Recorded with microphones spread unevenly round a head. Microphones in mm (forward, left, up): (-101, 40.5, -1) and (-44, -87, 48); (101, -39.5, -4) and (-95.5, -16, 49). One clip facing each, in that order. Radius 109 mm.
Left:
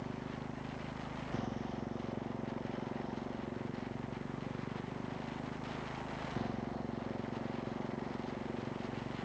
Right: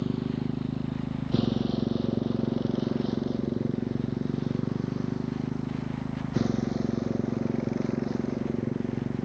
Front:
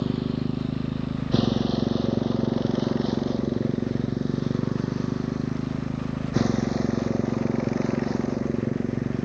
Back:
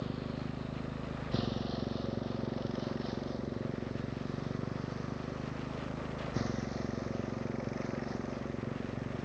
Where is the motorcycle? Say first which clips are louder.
Right 13 dB, front 13 dB; 25° right; by 9.2 s 20° right.